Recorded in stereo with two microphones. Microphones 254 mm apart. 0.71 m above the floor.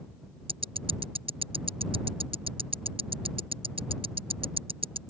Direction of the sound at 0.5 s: 20° right (ahead or behind).